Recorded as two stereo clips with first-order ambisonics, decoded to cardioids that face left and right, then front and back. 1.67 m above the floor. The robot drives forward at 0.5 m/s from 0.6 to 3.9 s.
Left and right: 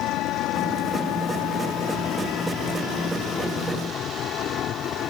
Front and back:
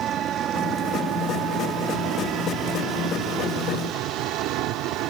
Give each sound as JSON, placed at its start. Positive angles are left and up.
{"t": 0.0, "sound": "an engine running", "azimuth_deg": 125}